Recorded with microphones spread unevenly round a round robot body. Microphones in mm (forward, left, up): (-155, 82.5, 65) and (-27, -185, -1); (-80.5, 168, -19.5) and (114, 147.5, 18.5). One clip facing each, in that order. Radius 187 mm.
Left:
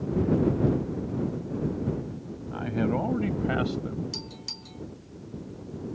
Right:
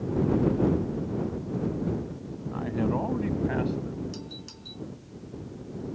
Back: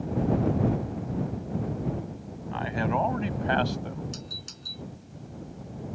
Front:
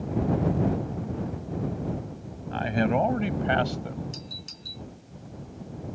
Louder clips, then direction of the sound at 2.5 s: Left 1 dB, front 4 dB; 40° left.